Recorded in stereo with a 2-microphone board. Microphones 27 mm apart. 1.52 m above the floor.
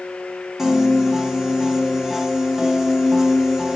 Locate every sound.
0.6 s a piano: 15° right (ahead or behind), 1.2 m